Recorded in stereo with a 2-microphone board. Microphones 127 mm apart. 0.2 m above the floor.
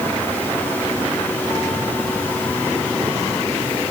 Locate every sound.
Only background noise.